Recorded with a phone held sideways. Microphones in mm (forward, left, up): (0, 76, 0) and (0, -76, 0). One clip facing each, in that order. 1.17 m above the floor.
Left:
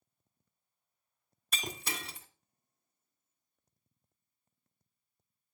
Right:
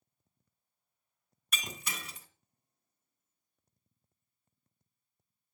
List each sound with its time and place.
1.5 s breaking glass: 30° left (ahead or behind), 1.5 m